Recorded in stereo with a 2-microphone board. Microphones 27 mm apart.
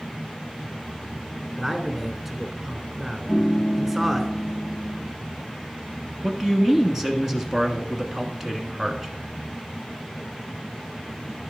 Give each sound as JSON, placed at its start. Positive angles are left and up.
{"t": 1.6, "sound": "a man speaking", "side_deg": -10, "distance_m": 1.2}
{"t": 3.3, "sound": "a piano", "side_deg": 25, "distance_m": 1.0}
{"t": 6.2, "sound": "a man speaking", "side_deg": -20, "distance_m": 1.3}